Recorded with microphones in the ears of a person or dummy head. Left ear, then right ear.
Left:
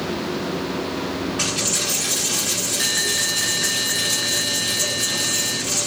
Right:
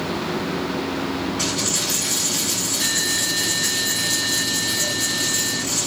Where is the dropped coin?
30° left (ahead or behind), 1.9 m.